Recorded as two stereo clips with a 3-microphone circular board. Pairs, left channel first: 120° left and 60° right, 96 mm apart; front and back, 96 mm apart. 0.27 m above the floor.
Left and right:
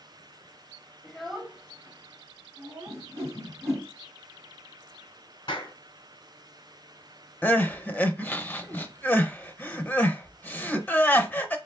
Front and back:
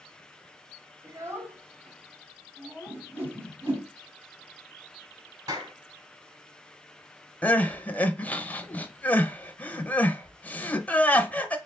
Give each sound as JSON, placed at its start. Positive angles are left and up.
{"t": 1.0, "sound": "a child speaking", "azimuth_deg": -165, "distance_m": 0.8}
{"t": 2.9, "sound": "a whoosh", "azimuth_deg": -120, "distance_m": 2.5}
{"t": 5.5, "sound": "a clap", "azimuth_deg": 150, "distance_m": 2.5}
{"t": 7.4, "sound": "crying", "azimuth_deg": 60, "distance_m": 0.6}